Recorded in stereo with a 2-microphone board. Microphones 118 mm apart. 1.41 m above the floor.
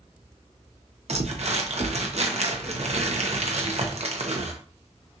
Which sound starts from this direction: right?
Crumpling, at 1.1 s.